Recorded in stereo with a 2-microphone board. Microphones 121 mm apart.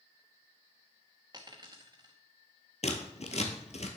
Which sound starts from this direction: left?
Scissors, at 2.8 s.